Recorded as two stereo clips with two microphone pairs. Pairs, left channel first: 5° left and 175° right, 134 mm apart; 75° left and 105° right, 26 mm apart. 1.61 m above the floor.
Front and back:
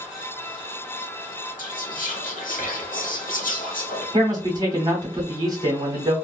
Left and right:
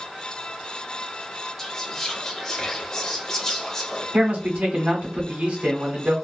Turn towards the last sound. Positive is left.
turn(degrees=-115)